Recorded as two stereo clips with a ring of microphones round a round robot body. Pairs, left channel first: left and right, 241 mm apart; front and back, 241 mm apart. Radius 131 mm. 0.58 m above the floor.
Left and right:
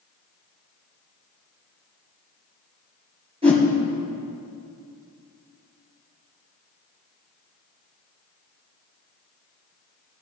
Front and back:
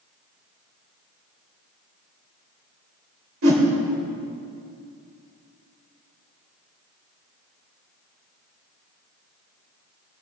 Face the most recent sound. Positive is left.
turn(degrees=-160)